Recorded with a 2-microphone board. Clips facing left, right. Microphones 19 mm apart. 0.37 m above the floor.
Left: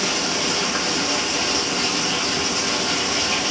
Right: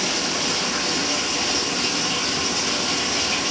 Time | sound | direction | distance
0.0 | running water | 10° left (ahead or behind) | 1.5 m